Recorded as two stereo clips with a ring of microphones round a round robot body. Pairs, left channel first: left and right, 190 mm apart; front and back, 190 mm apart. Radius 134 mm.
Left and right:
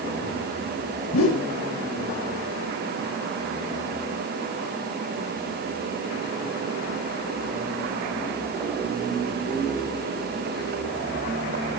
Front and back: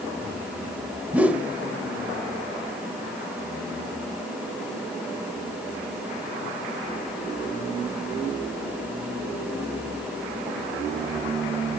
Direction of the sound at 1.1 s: 95° left.